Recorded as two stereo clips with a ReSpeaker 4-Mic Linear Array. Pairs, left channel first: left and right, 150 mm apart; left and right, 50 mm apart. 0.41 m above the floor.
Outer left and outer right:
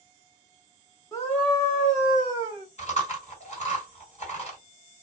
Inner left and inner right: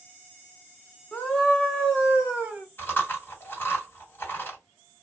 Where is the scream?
20° left (ahead or behind), 1.3 m; by 2.6 s 20° right (ahead or behind), 1.4 m.